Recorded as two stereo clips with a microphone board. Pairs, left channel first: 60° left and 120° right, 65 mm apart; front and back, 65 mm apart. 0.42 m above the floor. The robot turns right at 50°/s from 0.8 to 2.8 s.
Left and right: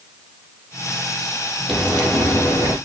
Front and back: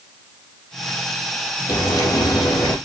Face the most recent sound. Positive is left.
turn(degrees=40)